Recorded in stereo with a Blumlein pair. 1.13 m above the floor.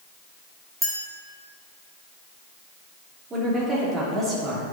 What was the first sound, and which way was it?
A clink, straight ahead.